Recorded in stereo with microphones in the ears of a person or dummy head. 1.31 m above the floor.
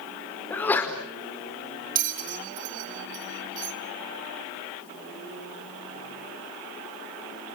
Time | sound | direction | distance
0.5 | a sneeze | 15° left (ahead or behind) | 5 m
1.9 | a bell | 45° right (ahead or behind) | 1.8 m